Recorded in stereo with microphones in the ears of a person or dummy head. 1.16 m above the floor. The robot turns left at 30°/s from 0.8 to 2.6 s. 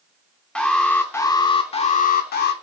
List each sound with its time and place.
0.6 s an alarm: 175° left, 0.9 m; by 2.5 s 120° left, 0.9 m